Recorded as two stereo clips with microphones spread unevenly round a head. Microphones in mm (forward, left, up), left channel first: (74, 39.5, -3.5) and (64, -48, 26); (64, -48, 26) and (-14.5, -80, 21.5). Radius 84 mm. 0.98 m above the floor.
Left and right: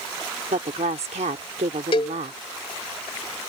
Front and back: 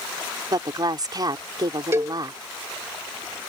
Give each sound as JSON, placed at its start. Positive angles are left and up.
{"t": 0.5, "sound": "a woman speaking", "azimuth_deg": -120}
{"t": 1.9, "sound": "a cowbell", "azimuth_deg": 140}